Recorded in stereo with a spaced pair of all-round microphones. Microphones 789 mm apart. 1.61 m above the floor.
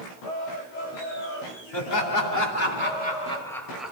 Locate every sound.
1.7 s laughter: 35° left (ahead or behind), 1.8 m; by 3.9 s centre (ahead or behind), 2.5 m